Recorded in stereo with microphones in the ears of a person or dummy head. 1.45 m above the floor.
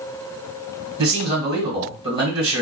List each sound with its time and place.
1.0 s a man speaking: 25° right (ahead or behind), 1.7 m